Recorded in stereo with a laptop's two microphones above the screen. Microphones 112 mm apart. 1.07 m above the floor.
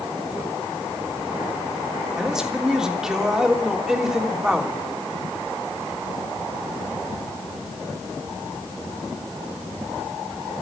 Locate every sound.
2.2 s a man speaking: 5° right (ahead or behind), 3 m